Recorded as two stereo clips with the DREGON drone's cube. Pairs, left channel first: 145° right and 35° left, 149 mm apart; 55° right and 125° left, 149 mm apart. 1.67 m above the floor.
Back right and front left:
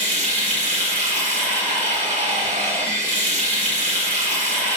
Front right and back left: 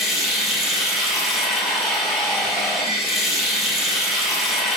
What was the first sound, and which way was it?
Running water, 35° left.